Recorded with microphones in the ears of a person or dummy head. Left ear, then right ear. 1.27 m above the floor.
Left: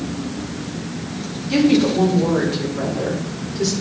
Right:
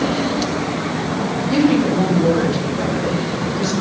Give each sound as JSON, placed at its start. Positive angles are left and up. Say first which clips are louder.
{"t": 1.5, "sound": "a woman speaking", "louder": "left 1 dB", "side_deg": 70, "distance_m": 3.5}